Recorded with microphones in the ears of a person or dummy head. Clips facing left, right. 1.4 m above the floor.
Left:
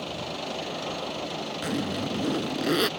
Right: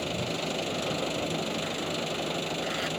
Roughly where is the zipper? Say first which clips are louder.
Left 4 dB; left.